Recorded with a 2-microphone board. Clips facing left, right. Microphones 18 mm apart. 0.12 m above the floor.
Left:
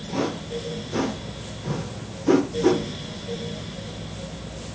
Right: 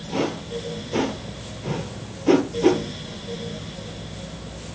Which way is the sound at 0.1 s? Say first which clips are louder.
Right 1 dB; 60° right (ahead or behind).